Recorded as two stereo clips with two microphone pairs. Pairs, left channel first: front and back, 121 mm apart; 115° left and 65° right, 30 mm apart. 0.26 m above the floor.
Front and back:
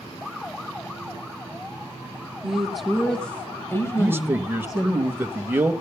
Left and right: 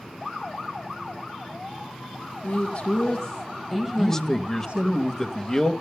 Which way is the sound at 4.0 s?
165° left.